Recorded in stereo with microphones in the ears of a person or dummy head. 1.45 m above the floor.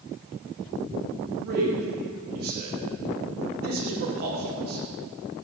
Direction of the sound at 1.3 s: 55° right (ahead or behind).